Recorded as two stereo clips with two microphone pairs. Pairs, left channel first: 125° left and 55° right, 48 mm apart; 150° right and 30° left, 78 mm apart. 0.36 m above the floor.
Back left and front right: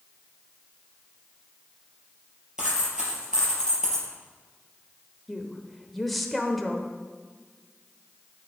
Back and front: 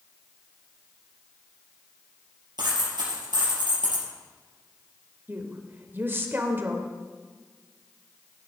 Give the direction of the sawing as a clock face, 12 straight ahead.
I don't hear sawing.